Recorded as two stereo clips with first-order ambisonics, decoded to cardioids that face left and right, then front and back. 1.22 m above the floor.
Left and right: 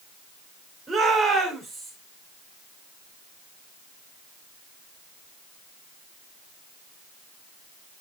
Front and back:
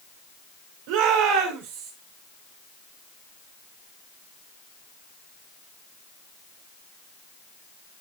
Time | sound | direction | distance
0.9 | a shout | 175° right | 4.5 m